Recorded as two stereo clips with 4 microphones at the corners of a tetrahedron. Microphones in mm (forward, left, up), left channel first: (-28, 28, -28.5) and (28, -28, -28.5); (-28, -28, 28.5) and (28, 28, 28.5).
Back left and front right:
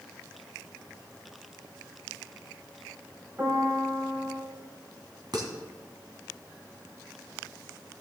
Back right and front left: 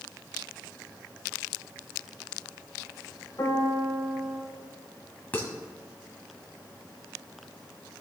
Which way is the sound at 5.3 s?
65° right.